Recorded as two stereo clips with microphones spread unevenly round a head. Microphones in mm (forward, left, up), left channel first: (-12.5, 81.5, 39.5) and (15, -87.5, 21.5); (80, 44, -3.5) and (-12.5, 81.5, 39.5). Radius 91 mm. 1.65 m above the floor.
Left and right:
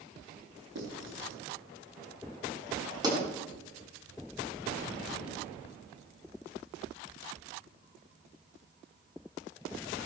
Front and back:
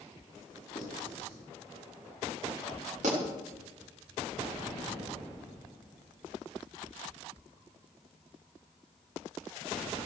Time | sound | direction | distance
0.8 | writing | 75° right | 5 m
3.0 | a pop | 150° right | 6 m